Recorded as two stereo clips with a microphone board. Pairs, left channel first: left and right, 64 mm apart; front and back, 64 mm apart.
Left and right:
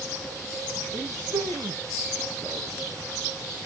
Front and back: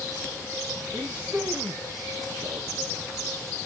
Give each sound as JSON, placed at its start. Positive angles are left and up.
{"t": 0.9, "sound": "a man speaking", "azimuth_deg": -120, "distance_m": 7.5}